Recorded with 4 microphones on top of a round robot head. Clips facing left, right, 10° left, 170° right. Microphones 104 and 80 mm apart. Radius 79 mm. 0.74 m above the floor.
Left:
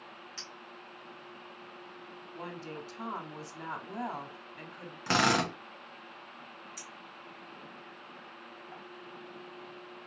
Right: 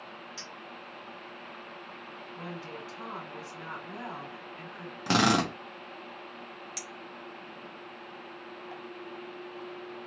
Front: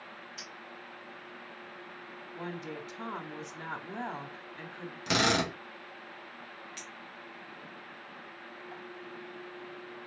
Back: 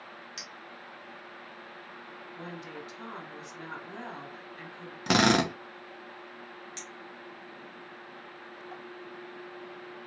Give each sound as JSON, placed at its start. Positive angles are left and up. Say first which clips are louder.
{"t": 0.4, "sound": "a clink", "louder": "right 4 dB, back 1 dB", "azimuth_deg": -170, "distance_m": 1.9}
{"t": 2.4, "sound": "a woman speaking", "louder": "even, front 3 dB", "azimuth_deg": 45, "distance_m": 1.5}
{"t": 5.1, "sound": "a drill", "louder": "right 3 dB, back 5 dB", "azimuth_deg": -155, "distance_m": 1.2}
{"t": 6.8, "sound": "a clink", "louder": "right 5 dB, back 2 dB", "azimuth_deg": -100, "distance_m": 1.0}